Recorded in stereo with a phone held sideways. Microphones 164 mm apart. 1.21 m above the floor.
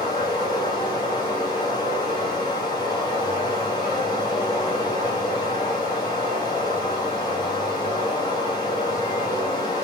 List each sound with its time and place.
0.0 s running water: 25° left (ahead or behind), 1.4 m